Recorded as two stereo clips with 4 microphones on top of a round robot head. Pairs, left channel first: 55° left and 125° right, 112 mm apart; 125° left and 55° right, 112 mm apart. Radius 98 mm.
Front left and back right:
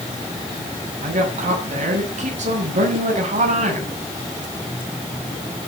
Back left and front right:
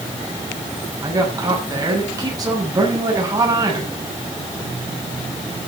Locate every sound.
1.0 s a woman speaking: 115° right, 7.5 m